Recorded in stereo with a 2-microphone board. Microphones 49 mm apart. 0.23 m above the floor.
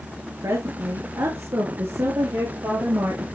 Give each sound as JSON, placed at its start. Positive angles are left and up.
{"t": 0.4, "sound": "a woman speaking", "side_deg": -70, "distance_m": 3.5}